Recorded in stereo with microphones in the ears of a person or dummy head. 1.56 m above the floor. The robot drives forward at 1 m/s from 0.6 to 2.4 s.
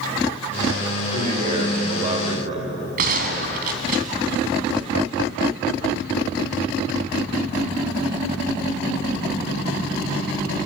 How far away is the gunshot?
About 3 m.